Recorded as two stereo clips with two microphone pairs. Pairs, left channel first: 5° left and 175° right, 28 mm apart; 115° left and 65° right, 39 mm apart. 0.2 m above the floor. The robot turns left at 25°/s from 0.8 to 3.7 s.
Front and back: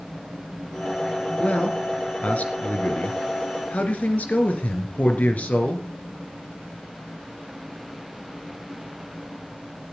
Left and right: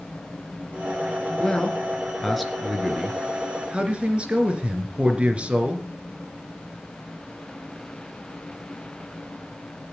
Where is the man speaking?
45° left, 2.5 m; by 5.9 s 10° right, 2.5 m.